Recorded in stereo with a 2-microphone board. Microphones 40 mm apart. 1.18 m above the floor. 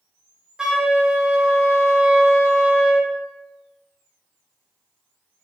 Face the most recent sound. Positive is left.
turn(degrees=-15)  # may be behind; listen again after turning